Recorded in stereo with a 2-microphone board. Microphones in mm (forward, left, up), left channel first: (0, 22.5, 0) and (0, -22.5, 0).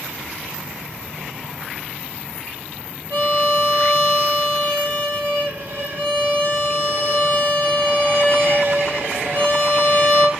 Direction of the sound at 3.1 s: 55° right (ahead or behind).